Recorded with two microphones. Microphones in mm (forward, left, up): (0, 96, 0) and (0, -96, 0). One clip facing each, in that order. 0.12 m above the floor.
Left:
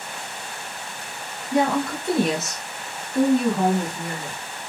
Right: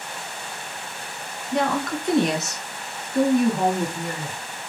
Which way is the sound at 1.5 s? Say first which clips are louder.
Left 2 dB; 10° left (ahead or behind).